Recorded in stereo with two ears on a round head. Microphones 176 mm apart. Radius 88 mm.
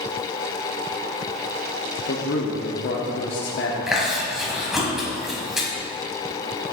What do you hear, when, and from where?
2.1 s a man speaking: 60° left (ahead or behind), 1.0 m
3.9 s chewing: centre (ahead or behind), 1.9 m